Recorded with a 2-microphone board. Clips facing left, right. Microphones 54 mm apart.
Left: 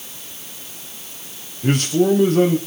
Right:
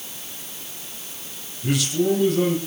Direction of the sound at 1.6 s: 45° left (ahead or behind).